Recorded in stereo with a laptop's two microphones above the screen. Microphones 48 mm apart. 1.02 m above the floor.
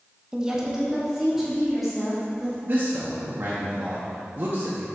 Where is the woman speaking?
15° right (ahead or behind), 0.8 m; by 2.5 s centre (ahead or behind), 3 m.